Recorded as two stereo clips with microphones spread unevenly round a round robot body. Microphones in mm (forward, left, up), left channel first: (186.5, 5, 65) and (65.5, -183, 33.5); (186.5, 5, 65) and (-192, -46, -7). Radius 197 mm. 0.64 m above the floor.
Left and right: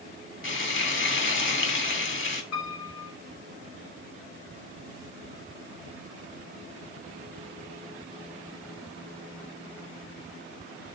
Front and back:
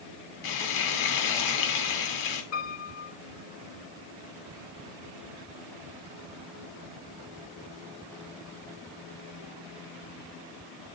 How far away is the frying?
About 3 m.